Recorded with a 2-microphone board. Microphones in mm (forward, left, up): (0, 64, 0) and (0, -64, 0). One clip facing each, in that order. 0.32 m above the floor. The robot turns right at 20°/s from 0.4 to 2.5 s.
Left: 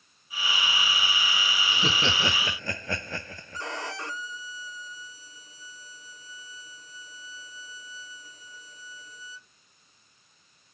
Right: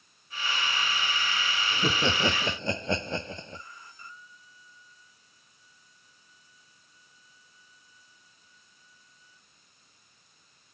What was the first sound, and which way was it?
Laughter, 5° right (ahead or behind).